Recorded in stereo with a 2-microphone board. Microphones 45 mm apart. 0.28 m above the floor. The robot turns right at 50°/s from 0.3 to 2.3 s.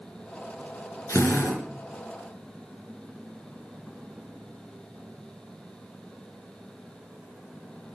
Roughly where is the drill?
Left.